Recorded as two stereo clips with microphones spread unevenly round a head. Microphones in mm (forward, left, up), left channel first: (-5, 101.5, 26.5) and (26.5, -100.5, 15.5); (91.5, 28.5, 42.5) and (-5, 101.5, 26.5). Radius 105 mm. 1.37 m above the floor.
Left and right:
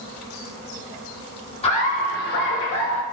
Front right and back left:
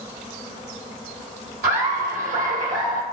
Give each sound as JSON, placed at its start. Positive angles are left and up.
{"t": 1.6, "sound": "laughter", "azimuth_deg": 165, "distance_m": 1.1}